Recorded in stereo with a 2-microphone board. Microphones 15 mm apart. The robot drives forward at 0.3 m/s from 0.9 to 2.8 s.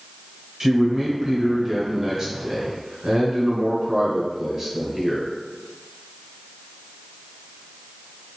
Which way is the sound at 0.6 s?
25° right (ahead or behind).